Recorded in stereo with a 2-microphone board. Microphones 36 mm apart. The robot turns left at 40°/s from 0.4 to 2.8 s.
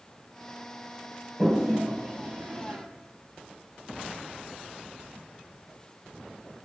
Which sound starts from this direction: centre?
A toilet flushing, at 1.4 s.